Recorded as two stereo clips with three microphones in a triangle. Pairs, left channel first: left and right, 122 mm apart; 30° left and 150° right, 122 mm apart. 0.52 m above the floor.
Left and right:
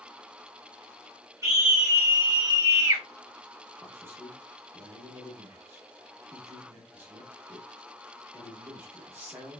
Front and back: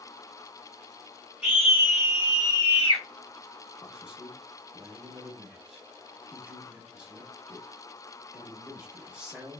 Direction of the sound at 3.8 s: 85° right.